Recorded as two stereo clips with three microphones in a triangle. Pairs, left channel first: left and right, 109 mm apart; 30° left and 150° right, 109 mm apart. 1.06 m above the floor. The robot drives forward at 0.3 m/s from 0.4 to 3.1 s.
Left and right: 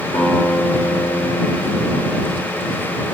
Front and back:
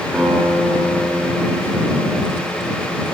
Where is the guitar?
110° left, 2.5 m; by 3.0 s 125° left, 3 m.